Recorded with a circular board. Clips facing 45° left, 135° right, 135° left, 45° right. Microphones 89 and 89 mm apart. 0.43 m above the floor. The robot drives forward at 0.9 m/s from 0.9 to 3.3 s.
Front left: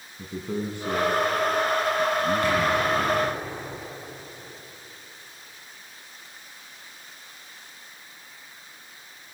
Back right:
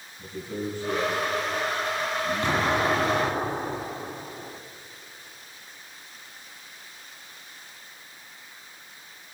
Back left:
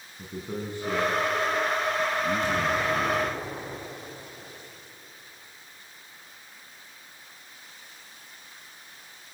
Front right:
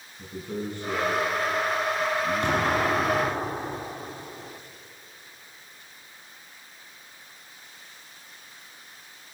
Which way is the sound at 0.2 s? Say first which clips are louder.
Front left 2 dB, front right 1 dB; 65° left.